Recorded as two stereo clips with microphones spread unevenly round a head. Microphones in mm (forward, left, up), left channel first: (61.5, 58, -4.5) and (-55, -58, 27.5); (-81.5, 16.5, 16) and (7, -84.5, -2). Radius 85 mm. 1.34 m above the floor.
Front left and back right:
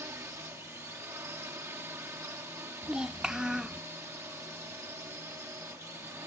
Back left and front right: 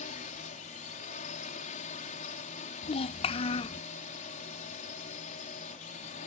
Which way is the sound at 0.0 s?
150° left.